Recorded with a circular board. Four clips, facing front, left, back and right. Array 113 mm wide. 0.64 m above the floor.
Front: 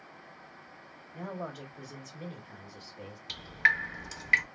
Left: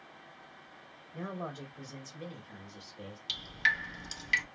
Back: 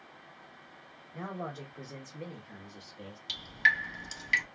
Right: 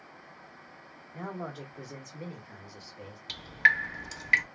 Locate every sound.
1.1 s a man speaking: 140° right, 1.6 m; by 3.2 s 25° right, 1.0 m
3.3 s dripping: 60° right, 0.6 m